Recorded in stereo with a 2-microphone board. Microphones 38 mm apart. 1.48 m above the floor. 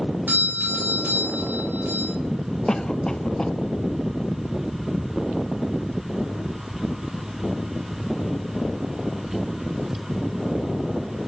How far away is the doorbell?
About 4 m.